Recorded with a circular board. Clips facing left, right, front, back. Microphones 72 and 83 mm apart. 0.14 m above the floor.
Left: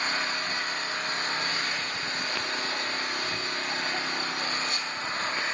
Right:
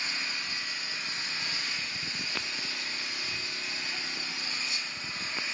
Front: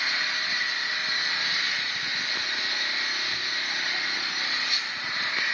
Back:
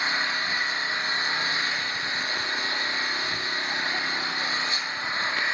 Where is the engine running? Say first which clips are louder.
Left 7 dB, back 3 dB; 115° left, 2.0 m.